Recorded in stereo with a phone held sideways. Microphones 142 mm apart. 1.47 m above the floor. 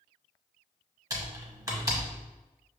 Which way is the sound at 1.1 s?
25° right (ahead or behind).